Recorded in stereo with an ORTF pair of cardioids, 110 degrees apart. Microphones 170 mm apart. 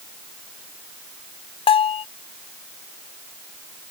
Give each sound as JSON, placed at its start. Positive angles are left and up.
{"t": 1.7, "sound": "a bell", "azimuth_deg": 30}